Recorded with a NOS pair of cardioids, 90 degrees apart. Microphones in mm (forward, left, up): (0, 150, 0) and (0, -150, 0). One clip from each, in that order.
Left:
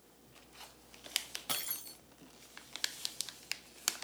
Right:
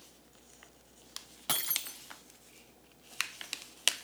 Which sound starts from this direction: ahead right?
Breaking glass, at 1.5 s.